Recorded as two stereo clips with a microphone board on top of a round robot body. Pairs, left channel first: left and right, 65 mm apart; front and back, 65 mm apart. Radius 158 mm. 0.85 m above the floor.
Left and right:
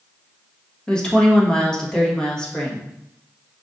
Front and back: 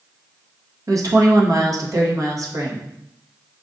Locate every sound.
0.9 s a woman speaking: 165° left, 1.4 m